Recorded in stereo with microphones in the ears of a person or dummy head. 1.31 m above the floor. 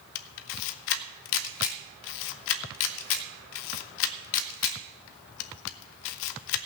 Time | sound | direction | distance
0.1 | a camera shutter | 65° left (ahead or behind) | 0.6 m